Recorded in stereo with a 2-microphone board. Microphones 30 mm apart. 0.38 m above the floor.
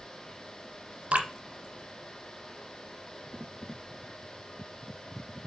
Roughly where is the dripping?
Right.